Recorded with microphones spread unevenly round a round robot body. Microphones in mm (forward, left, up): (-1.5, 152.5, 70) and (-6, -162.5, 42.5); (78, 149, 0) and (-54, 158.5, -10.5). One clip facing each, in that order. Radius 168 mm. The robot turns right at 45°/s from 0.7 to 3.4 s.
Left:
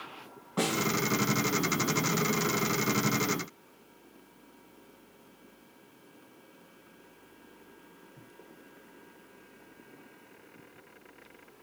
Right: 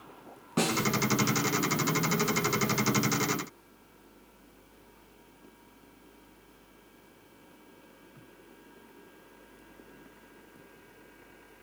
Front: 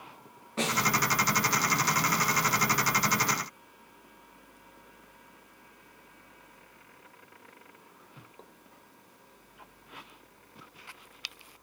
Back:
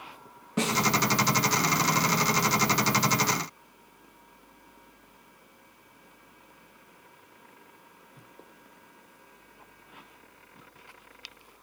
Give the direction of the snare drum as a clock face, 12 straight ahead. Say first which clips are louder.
Right 1 dB, back 3 dB; 5 o'clock.